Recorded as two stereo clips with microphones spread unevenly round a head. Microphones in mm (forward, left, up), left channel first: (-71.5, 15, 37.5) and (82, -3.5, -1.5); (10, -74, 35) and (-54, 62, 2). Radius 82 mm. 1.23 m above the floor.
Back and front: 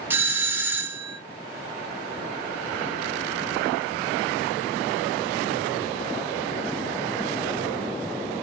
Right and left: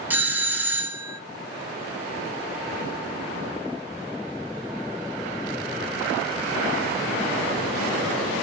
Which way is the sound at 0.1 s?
50° left.